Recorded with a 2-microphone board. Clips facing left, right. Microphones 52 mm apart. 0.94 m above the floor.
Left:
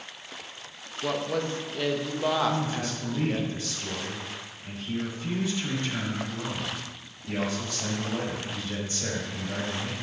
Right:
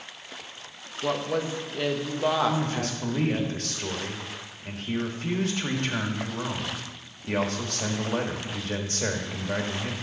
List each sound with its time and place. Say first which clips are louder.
1.0 s a woman speaking: right 1 dB; 10° right (ahead or behind), 0.9 m
2.5 s a man speaking: right 1 dB; 75° right (ahead or behind), 1.4 m